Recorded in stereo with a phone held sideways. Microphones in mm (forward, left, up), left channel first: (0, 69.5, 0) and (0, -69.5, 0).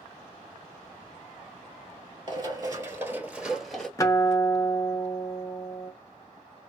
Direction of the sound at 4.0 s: 25° left (ahead or behind).